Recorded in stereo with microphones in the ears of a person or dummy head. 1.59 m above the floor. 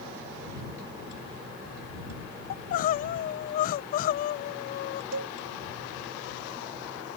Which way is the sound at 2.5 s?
45° left (ahead or behind).